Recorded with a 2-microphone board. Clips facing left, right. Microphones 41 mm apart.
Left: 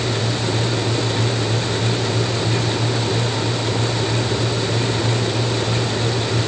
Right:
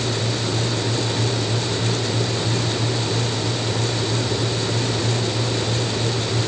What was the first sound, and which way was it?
Only background noise.